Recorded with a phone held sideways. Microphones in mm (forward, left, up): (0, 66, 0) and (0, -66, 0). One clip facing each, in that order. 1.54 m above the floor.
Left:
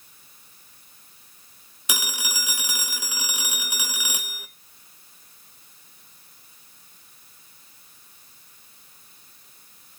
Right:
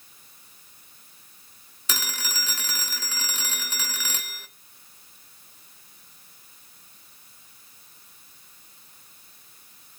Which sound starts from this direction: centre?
A phone ringing, at 1.9 s.